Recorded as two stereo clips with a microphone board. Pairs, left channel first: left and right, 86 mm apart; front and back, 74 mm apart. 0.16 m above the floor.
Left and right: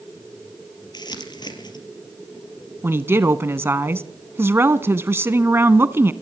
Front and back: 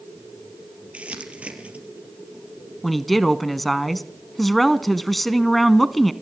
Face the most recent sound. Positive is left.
turn(degrees=-85)